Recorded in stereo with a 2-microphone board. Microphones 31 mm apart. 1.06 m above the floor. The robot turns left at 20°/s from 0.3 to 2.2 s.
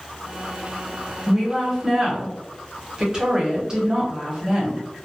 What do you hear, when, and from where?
1.3 s a woman speaking: 5° right (ahead or behind), 0.9 m; by 4.8 s 20° right (ahead or behind), 0.9 m